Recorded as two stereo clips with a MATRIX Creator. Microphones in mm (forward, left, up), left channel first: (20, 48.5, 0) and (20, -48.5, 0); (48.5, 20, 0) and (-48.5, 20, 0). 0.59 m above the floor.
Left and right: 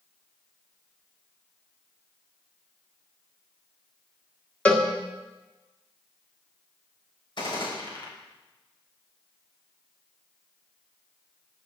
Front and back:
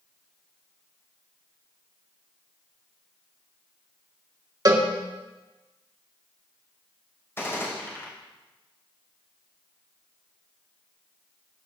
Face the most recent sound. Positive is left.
turn(degrees=65)